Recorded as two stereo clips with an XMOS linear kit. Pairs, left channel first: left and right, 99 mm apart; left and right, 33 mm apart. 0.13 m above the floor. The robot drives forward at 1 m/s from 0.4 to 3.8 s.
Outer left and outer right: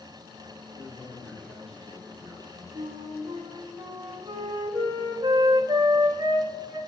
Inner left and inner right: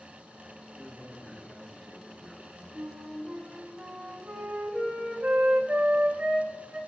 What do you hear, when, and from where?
0.8 s a man speaking: 5° left (ahead or behind), 4 m
2.8 s a flute: 50° right (ahead or behind), 3.5 m; by 6.8 s 35° right (ahead or behind), 4 m